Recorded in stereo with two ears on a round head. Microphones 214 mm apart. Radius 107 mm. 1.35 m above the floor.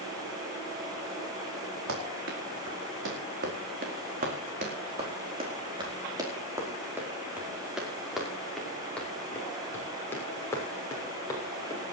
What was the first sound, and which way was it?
Running footsteps, 60° right (ahead or behind).